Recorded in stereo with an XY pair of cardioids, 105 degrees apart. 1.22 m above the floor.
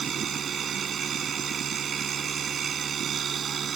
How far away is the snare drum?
No snare drum in this recording.